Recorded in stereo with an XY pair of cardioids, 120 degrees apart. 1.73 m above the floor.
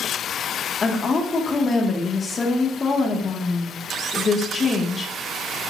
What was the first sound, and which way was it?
A woman speaking, 30° left.